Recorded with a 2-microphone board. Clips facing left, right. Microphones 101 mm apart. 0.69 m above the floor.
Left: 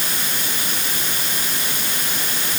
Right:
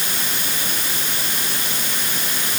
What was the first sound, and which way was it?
Only background noise.